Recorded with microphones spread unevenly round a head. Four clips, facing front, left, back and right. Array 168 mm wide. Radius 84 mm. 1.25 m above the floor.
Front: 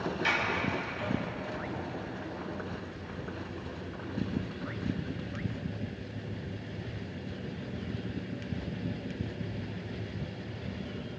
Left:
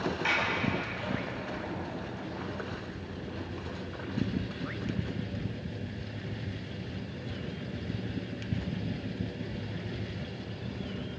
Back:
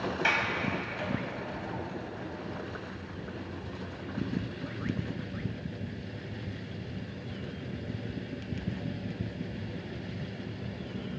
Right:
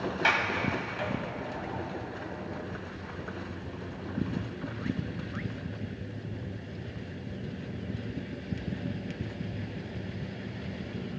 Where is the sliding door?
115° right, 3.5 m.